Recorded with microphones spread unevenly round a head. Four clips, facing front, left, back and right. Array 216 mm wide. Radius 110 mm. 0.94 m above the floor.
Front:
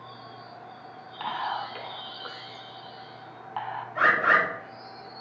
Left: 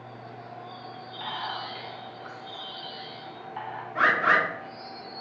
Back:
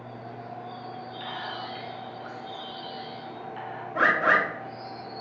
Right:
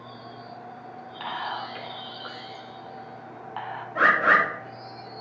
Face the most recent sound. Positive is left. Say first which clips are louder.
# right 3 dB, even
turn(degrees=-160)